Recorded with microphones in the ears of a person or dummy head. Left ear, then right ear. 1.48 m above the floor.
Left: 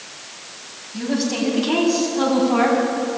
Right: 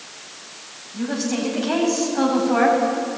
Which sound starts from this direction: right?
A woman speaking, at 0.9 s.